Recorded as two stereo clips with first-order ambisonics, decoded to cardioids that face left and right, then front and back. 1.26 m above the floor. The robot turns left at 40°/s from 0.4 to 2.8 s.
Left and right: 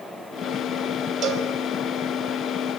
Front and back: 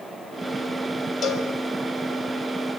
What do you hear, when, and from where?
1.2 s a cowbell: 50° right, 1.5 m; by 1.5 s 60° right, 1.5 m